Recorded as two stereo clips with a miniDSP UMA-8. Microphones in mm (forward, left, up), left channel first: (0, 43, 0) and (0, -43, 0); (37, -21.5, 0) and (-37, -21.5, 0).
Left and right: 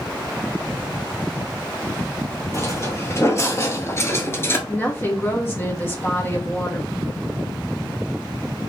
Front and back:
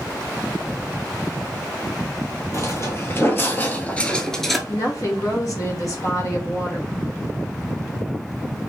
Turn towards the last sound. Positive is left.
turn(degrees=30)